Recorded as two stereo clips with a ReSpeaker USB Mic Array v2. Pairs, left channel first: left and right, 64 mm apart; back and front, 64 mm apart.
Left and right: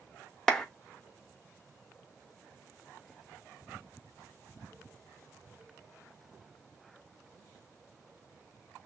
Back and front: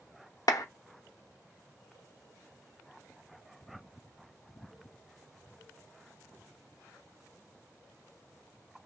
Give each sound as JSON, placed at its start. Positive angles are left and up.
{"t": 0.5, "sound": "a clap", "azimuth_deg": 175, "distance_m": 0.7}